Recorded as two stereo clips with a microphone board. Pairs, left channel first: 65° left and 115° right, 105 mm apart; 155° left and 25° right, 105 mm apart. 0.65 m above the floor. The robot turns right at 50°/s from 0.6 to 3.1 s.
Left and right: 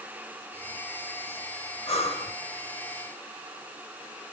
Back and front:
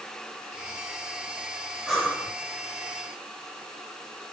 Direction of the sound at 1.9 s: 65° left.